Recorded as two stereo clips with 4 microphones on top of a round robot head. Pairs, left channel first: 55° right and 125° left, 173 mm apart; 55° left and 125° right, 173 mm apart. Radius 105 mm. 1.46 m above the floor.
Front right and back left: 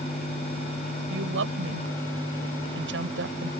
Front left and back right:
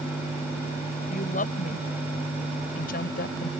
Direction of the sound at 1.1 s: 105° left.